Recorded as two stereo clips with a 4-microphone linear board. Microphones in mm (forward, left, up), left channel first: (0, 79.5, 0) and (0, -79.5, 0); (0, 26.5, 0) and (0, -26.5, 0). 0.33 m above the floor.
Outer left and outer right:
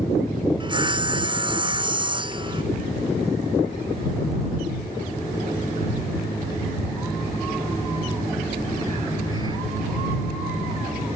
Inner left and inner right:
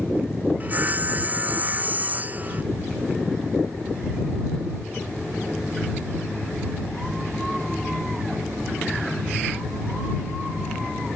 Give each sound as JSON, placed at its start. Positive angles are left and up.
{"t": 0.6, "sound": "sawing", "side_deg": -30}